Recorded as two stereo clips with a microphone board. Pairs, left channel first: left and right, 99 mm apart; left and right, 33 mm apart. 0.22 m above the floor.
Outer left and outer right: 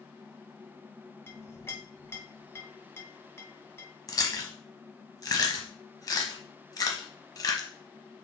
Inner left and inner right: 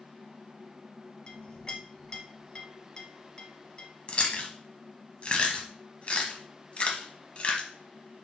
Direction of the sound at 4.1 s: 40° left (ahead or behind).